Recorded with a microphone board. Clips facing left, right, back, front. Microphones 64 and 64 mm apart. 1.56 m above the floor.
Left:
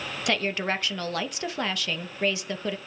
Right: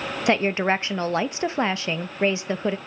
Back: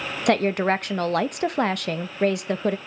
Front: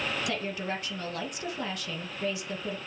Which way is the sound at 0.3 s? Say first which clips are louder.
Right 6 dB, back 12 dB; 155° right.